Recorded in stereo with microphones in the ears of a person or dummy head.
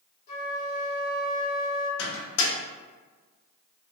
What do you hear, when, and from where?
0.3 s a flute: 50° left (ahead or behind), 1.0 m
2.0 s a microwave: 75° left (ahead or behind), 0.7 m